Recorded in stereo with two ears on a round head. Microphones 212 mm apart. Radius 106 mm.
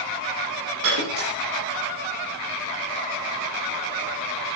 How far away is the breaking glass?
About 7 m.